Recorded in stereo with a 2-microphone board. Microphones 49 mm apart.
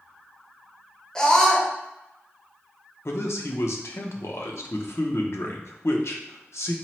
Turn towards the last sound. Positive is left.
turn(degrees=70)  # may be behind; listen again after turning